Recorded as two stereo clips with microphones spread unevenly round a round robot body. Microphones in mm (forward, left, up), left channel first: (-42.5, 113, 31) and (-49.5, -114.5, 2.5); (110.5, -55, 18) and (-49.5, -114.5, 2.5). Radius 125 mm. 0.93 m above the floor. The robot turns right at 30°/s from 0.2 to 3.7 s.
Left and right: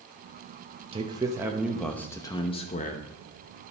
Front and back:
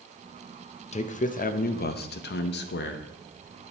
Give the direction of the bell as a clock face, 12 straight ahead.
No bell in this recording.